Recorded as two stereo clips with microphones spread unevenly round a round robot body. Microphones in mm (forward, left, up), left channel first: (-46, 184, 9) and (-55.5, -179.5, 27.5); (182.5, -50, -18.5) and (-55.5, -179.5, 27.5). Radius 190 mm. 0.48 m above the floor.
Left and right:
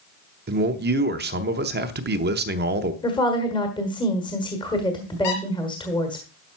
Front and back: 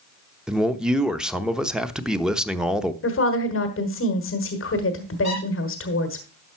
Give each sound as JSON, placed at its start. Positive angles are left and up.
{"t": 0.5, "sound": "a man speaking", "azimuth_deg": -50, "distance_m": 0.8}
{"t": 3.0, "sound": "a woman speaking", "azimuth_deg": 15, "distance_m": 1.4}
{"t": 5.2, "sound": "a squeak", "azimuth_deg": 100, "distance_m": 4.5}